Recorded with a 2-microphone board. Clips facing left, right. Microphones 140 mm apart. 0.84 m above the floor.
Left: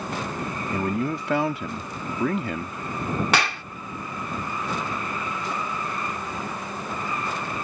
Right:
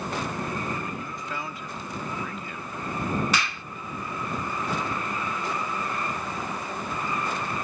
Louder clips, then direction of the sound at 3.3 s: Left 5 dB; 70° left (ahead or behind).